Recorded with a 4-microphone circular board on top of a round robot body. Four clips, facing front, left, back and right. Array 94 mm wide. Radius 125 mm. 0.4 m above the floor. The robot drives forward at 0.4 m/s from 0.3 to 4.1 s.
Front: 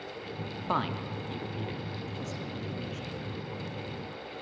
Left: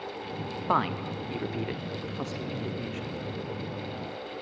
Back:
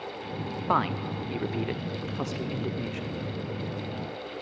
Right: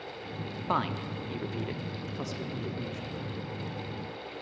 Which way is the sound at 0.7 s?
140° left.